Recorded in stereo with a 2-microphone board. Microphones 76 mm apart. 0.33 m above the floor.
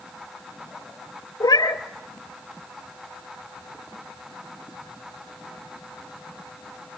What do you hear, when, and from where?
1.4 s a cat meowing: 60° left (ahead or behind), 1.3 m